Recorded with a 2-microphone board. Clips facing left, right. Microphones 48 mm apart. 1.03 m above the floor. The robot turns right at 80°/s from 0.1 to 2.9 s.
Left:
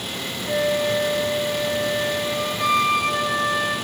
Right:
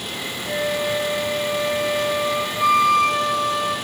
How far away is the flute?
About 3.5 m.